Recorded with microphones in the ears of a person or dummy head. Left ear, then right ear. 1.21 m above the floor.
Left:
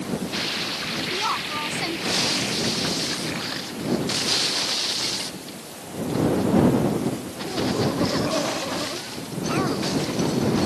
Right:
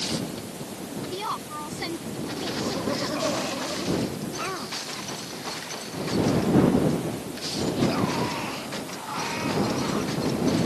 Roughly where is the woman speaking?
Centre.